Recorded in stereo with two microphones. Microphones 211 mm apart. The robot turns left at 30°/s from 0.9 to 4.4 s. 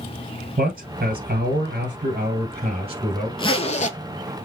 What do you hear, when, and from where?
0.6 s a man speaking: 80° right, 1.5 m; by 3.3 s 150° right, 1.5 m
3.4 s a zipper: 25° left (ahead or behind), 0.5 m; by 4.0 s 40° left (ahead or behind), 0.5 m